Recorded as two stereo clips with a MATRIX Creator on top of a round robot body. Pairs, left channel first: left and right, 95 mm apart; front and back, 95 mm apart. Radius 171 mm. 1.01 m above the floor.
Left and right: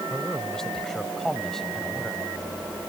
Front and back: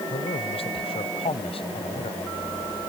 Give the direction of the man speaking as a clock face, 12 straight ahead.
12 o'clock.